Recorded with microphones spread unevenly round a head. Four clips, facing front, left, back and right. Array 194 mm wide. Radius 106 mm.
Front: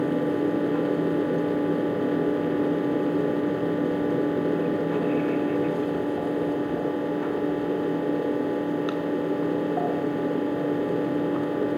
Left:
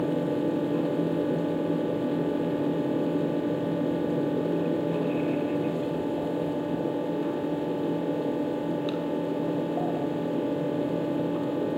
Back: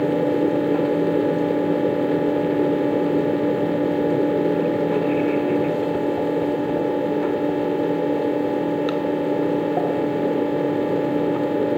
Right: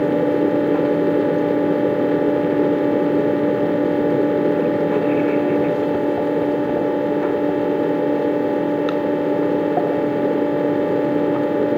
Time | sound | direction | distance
0.0 | a fan | 115° right | 1.2 m